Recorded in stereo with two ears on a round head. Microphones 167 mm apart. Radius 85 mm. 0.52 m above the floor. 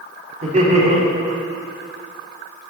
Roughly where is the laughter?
Right.